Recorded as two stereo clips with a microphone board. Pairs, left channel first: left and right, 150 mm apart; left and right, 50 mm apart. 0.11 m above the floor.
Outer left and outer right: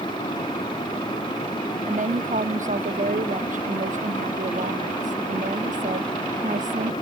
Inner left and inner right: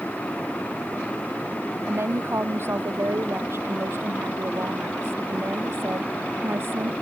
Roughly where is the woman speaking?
Right.